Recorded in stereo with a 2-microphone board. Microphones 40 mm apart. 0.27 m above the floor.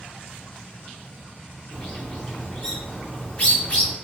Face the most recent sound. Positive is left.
turn(degrees=30)  # may be behind; listen again after turning